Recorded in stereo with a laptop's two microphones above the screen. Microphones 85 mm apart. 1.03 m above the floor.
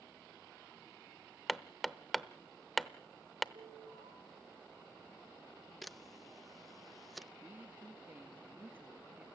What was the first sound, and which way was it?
Hammering, centre (ahead or behind).